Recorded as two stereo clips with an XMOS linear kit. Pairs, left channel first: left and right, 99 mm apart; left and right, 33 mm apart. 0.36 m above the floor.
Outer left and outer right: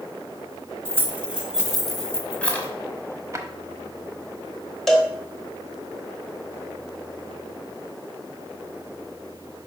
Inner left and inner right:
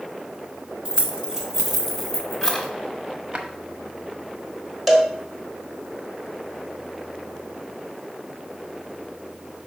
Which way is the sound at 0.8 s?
25° right (ahead or behind).